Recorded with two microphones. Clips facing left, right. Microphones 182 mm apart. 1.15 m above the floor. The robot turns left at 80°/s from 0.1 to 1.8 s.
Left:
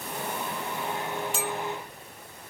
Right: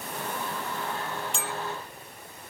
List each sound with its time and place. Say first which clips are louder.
1.3 s a clink: left 4 dB; 5° left (ahead or behind), 0.7 m; by 1.5 s 5° right (ahead or behind), 0.7 m